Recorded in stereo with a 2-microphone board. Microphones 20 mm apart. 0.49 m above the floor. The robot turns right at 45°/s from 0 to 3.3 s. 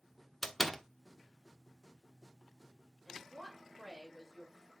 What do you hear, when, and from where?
0.4 s a door slam: 10° left (ahead or behind), 0.8 m; by 0.8 s 15° left (ahead or behind), 0.8 m
3.0 s a woman speaking: 30° right (ahead or behind), 6 m; by 4.7 s 20° right (ahead or behind), 6 m